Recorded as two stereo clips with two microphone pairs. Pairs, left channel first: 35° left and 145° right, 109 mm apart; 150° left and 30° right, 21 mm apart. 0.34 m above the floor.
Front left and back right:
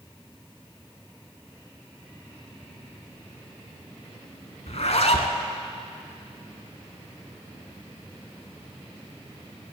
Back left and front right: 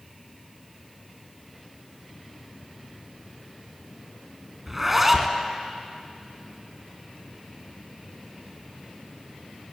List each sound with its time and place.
4.7 s a zipper: 45° left, 0.9 m